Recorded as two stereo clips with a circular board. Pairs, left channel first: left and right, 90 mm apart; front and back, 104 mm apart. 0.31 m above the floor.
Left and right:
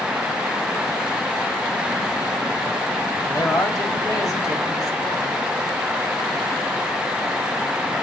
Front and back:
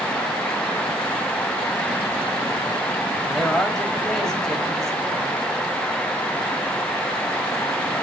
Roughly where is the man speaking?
Left.